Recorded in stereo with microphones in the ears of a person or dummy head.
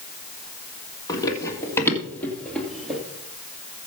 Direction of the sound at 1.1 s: 20° left (ahead or behind).